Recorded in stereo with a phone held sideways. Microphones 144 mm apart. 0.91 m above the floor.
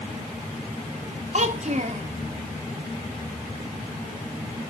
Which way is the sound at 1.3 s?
50° right (ahead or behind).